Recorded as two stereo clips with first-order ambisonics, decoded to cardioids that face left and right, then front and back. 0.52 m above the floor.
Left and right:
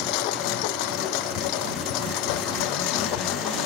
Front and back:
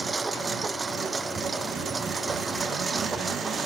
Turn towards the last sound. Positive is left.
turn(degrees=100)